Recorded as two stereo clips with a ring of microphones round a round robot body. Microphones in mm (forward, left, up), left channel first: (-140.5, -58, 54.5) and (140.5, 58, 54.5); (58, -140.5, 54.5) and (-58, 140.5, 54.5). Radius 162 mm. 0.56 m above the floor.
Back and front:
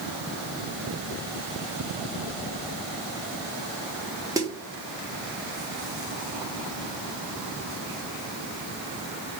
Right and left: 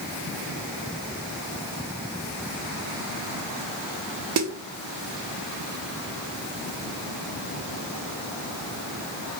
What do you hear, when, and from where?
4.4 s a snare drum: 100° left, 0.9 m